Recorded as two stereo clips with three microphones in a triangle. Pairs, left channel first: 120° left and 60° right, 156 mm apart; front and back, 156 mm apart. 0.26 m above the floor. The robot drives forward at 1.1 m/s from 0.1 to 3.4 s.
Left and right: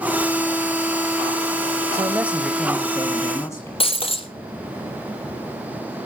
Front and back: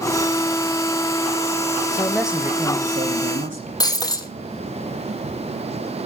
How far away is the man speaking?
About 0.9 m.